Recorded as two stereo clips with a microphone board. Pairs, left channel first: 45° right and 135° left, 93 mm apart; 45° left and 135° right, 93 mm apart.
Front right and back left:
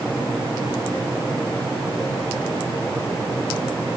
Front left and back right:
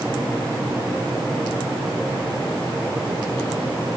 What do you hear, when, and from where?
Only background noise.